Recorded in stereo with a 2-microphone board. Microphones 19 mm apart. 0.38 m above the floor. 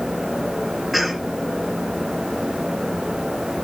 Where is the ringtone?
I don't hear a ringtone.